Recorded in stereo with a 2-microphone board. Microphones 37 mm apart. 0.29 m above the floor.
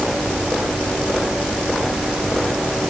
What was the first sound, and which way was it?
Only background noise.